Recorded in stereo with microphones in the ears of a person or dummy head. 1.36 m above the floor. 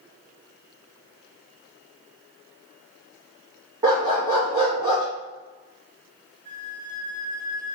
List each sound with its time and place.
3.8 s a dog barking: 15° right (ahead or behind), 0.8 m
6.5 s a flute: 35° right (ahead or behind), 0.9 m